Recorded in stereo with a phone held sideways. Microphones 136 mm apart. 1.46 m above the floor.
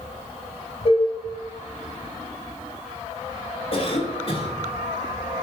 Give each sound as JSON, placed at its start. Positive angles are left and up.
{"t": 0.8, "sound": "dishes clattering", "side_deg": 50, "distance_m": 4.5}
{"t": 3.7, "sound": "a cough", "side_deg": 45, "distance_m": 3.5}